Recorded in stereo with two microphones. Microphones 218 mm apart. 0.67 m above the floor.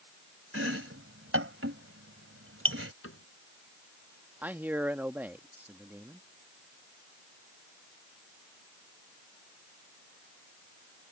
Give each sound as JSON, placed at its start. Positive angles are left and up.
{"t": 0.5, "sound": "chopping", "side_deg": -75}
{"t": 3.0, "sound": "a cupboard door", "side_deg": 85}
{"t": 4.4, "sound": "a man speaking", "side_deg": -10}